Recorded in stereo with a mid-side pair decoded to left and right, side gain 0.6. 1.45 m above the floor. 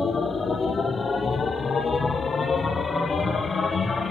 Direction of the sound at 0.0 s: 25° left.